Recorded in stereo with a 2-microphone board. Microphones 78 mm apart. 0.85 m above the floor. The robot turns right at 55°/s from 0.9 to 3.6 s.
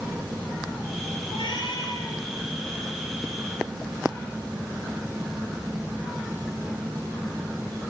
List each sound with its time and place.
1.3 s a cat meowing: 85° left, 3.5 m; by 2.2 s 135° left, 3.5 m